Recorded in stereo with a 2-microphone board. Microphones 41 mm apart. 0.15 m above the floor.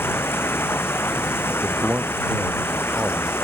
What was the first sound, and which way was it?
Running water, 75° left (ahead or behind).